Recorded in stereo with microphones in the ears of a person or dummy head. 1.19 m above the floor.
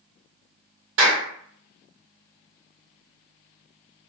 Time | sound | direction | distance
1.0 | a clap | 75° right (ahead or behind) | 1.3 m